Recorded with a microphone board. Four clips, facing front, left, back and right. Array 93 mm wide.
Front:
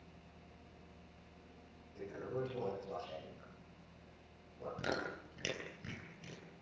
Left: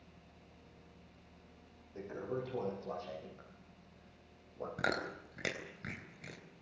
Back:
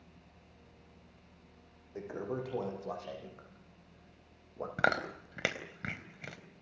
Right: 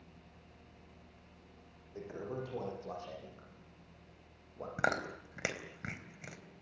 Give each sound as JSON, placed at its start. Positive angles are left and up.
{"t": 1.9, "sound": "a toilet flushing", "azimuth_deg": -175, "distance_m": 9.5}
{"t": 4.8, "sound": "chewing", "azimuth_deg": -160, "distance_m": 3.5}